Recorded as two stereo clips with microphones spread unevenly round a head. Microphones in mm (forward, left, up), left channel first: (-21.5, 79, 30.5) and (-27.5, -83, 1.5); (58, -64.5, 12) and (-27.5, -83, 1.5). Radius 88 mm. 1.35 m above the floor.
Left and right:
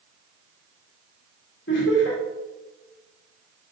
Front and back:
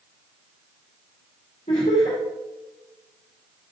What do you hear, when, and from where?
1.7 s laughter: 55° left, 2 m